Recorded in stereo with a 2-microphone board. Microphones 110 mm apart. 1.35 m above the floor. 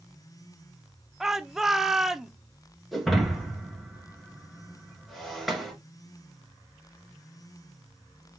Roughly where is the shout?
Centre.